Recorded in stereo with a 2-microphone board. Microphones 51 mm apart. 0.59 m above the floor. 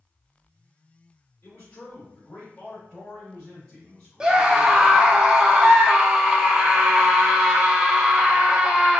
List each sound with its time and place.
1.4 s a man speaking: 40° left (ahead or behind), 1.8 m; by 5.2 s centre (ahead or behind), 3.5 m
4.2 s a scream: 15° right (ahead or behind), 0.7 m